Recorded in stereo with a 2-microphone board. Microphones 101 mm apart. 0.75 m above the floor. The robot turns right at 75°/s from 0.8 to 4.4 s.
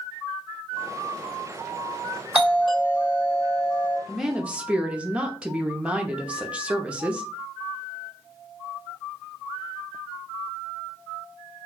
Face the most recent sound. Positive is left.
turn(degrees=-10)  # may be behind; listen again after turning